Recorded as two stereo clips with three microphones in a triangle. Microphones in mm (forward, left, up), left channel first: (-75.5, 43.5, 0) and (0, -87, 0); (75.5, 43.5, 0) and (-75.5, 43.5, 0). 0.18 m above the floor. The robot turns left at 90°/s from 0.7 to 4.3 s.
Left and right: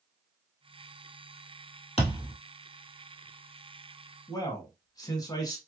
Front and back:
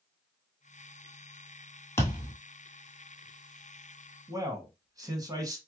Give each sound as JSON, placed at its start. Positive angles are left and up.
{"t": 2.0, "sound": "a thud", "azimuth_deg": 75, "distance_m": 1.6}
{"t": 4.3, "sound": "a man speaking", "azimuth_deg": 150, "distance_m": 1.1}